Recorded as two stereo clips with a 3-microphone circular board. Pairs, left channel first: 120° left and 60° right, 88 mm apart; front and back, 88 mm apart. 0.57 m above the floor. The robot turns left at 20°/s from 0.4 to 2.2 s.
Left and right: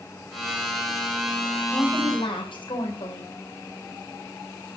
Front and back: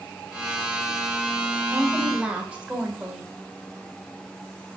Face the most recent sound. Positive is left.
turn(degrees=105)